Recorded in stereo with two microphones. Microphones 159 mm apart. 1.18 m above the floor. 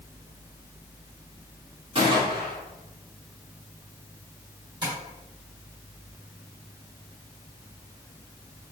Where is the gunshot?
35° right (ahead or behind), 1.4 m.